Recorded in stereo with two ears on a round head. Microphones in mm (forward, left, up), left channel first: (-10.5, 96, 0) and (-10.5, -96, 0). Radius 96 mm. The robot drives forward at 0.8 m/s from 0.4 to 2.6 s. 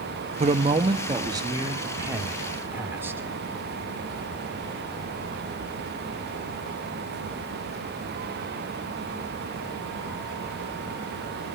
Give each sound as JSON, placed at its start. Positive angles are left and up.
{"t": 0.4, "sound": "a man speaking", "side_deg": -35, "distance_m": 0.9}